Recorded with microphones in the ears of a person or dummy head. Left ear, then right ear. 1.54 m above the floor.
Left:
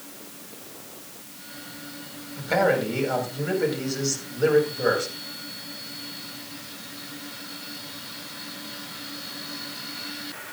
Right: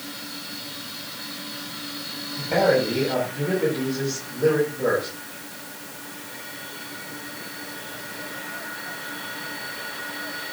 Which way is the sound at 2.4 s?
90° left.